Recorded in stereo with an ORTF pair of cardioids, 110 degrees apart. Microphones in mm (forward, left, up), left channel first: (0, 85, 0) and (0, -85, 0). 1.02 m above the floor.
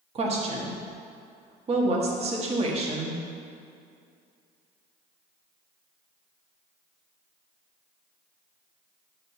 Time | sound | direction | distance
0.1 | a woman speaking | 35° right | 1.5 m